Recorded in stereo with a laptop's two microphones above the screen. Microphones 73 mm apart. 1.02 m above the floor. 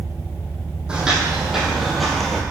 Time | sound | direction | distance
0.9 | footsteps | 15° right (ahead or behind) | 2 m